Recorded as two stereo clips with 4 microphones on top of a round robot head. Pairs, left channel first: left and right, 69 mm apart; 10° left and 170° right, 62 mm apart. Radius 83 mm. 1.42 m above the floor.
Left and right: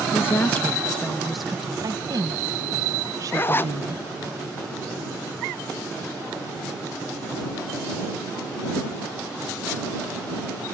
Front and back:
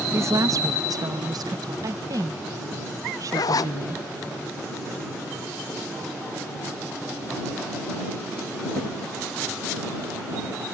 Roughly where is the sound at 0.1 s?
Behind left.